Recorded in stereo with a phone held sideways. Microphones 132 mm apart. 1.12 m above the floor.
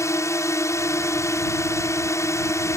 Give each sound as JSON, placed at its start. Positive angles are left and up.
{"t": 0.0, "sound": "a drone", "side_deg": 20}